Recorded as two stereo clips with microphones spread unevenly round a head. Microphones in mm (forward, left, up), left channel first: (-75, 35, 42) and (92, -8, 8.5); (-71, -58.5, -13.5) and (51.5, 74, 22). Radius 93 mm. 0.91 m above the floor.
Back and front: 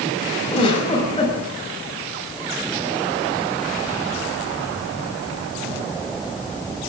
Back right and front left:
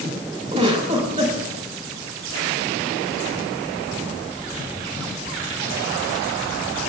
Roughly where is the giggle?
Left.